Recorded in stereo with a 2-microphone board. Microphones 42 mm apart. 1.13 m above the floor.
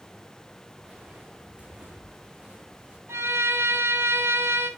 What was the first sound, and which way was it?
Footsteps, 20° right (ahead or behind).